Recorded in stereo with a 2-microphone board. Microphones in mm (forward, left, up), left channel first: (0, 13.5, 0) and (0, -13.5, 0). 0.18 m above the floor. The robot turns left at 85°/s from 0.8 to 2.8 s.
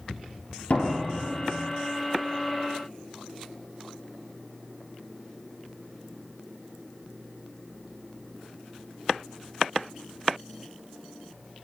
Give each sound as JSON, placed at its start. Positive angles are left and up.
{"t": 0.7, "sound": "a door slam", "azimuth_deg": 60, "distance_m": 3.0}